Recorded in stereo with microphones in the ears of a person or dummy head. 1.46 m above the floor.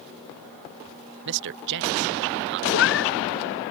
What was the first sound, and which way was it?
A man speaking, 55° right (ahead or behind).